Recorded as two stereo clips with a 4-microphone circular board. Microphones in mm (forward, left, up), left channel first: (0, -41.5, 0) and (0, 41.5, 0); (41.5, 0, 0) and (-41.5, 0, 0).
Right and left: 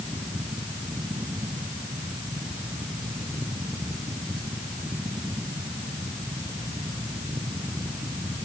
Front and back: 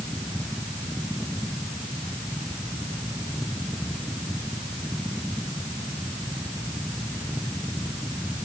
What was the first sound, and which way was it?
Only background noise.